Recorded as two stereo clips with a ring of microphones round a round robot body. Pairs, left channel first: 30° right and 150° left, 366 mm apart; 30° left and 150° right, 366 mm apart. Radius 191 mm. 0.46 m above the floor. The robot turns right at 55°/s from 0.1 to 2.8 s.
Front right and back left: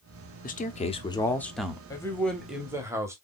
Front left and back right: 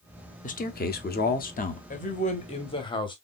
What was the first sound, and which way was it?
A man speaking, 5° right.